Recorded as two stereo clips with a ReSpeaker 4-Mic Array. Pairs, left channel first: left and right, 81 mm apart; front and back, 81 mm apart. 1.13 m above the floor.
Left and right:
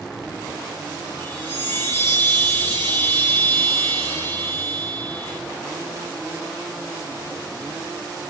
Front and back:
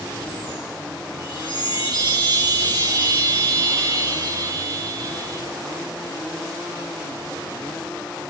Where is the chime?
25° left, 6.5 m.